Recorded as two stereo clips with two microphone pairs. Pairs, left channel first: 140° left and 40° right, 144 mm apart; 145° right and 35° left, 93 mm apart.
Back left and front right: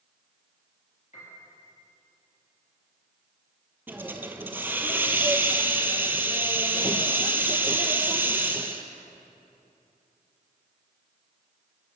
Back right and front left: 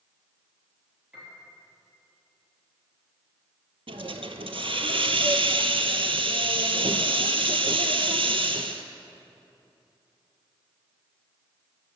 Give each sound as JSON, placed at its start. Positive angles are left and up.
{"t": 1.1, "sound": "a piano", "azimuth_deg": 115, "distance_m": 3.0}
{"t": 3.9, "sound": "a hiss", "azimuth_deg": 35, "distance_m": 0.6}